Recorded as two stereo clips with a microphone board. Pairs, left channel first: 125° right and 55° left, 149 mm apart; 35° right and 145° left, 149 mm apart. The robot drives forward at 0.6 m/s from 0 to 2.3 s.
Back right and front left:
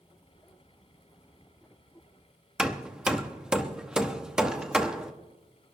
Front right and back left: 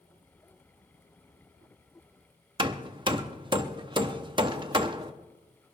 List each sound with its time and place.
2.6 s hammering: 135° left, 0.7 m